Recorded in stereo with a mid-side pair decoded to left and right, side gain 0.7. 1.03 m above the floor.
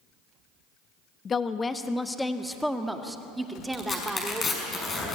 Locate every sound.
1.2 s a woman speaking: 30° left, 1.1 m; by 4.7 s 15° right, 3 m
3.7 s tearing paper: 30° left, 5.5 m